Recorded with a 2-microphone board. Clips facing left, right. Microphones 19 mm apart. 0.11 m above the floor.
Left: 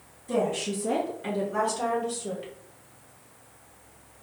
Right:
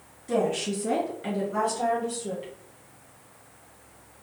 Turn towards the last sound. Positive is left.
turn(degrees=15)  # may be behind; listen again after turning